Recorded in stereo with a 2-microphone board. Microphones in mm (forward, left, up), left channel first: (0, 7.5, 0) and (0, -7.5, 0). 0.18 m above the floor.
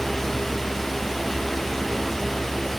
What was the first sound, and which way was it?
Only background noise.